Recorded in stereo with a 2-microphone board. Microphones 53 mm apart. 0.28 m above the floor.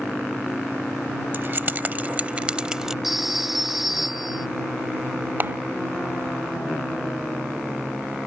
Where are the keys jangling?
45° right (ahead or behind); by 2.9 s 10° right (ahead or behind).